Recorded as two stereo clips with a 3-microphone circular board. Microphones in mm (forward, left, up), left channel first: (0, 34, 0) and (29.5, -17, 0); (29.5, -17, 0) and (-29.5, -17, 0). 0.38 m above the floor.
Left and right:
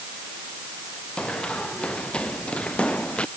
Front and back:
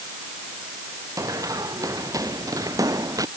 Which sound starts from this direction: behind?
Running footsteps, at 1.2 s.